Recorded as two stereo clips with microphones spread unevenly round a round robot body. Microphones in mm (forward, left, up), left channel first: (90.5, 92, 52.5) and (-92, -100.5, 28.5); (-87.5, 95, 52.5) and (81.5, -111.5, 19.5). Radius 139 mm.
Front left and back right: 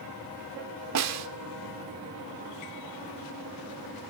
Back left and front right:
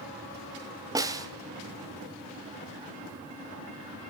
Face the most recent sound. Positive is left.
turn(degrees=-125)